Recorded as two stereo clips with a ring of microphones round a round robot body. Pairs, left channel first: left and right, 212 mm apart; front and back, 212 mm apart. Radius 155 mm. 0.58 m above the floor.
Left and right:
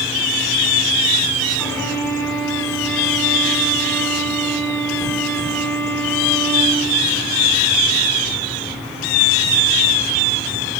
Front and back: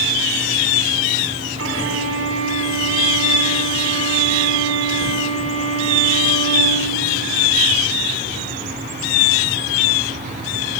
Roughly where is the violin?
Behind.